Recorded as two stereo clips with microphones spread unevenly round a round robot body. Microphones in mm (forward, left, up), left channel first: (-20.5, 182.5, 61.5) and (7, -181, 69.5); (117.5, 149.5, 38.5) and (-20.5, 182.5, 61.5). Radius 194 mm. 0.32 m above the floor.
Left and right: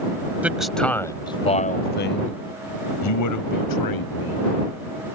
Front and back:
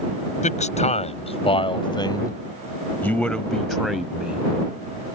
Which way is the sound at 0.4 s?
Straight ahead.